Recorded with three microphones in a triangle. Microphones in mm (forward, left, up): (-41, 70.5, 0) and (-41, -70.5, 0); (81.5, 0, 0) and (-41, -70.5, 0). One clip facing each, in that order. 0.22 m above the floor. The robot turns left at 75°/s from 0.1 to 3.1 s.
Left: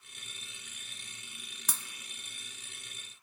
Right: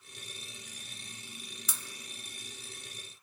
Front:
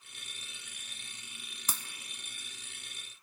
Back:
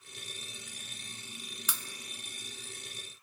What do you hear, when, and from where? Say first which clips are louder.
1.7 s breaking glass: left 4 dB, front 1 dB; 70° left, 0.6 m; by 1.8 s 60° left, 0.6 m